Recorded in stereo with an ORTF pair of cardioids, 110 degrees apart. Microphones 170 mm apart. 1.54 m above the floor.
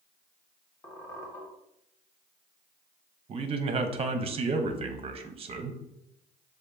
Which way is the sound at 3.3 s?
35° right.